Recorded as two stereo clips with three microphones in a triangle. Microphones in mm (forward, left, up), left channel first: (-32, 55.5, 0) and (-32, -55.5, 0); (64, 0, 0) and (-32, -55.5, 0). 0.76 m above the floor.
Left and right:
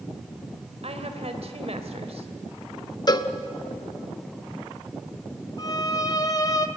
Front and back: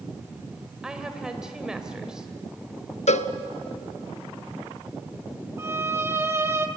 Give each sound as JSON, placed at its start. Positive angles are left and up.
{"t": 0.8, "sound": "a woman speaking", "azimuth_deg": -65, "distance_m": 2.5}
{"t": 3.1, "sound": "a cowbell", "azimuth_deg": 40, "distance_m": 0.9}
{"t": 5.6, "sound": "a violin", "azimuth_deg": 145, "distance_m": 1.4}